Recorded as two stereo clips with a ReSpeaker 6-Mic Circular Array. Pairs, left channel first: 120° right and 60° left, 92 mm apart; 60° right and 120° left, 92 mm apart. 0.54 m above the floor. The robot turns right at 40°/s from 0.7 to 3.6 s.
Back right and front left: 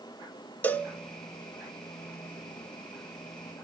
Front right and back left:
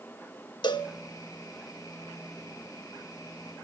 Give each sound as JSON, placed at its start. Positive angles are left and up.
{"t": 0.6, "sound": "a cowbell", "azimuth_deg": -55, "distance_m": 0.7}